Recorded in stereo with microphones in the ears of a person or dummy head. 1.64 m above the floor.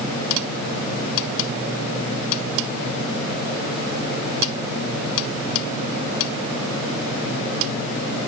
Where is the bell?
No bell in this recording.